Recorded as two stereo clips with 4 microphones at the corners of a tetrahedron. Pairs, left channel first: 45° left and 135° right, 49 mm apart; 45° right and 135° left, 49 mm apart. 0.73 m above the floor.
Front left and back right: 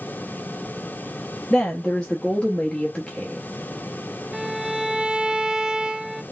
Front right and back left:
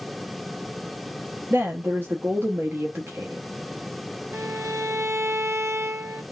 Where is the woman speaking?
115° left, 0.9 m.